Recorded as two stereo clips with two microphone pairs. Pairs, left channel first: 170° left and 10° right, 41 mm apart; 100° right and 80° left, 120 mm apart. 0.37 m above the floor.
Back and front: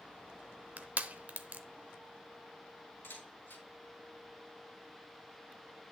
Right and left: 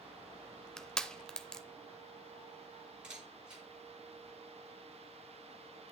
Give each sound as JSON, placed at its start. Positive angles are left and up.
{"t": 0.8, "sound": "crushing", "azimuth_deg": -20, "distance_m": 0.7}
{"t": 3.0, "sound": "a camera shutter", "azimuth_deg": 160, "distance_m": 5.0}